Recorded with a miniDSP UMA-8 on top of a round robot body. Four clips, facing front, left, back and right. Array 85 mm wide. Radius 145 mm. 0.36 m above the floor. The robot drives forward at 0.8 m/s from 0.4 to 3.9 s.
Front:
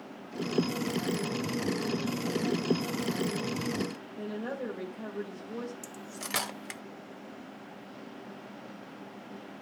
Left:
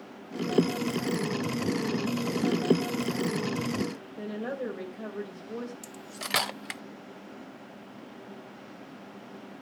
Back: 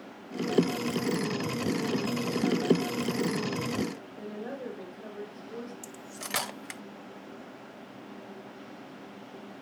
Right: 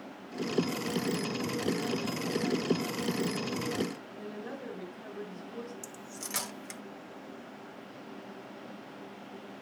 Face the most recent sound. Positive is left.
turn(degrees=90)